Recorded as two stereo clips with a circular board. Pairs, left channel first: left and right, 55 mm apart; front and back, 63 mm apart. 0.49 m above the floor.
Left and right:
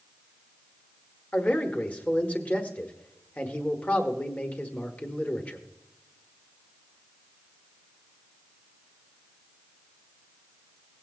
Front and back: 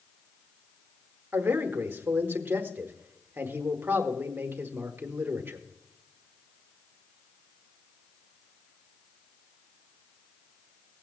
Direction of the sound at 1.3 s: 140° left.